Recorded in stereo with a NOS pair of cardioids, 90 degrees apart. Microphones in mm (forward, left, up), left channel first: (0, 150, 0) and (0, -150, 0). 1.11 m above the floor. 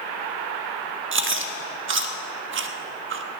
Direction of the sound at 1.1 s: 40° right.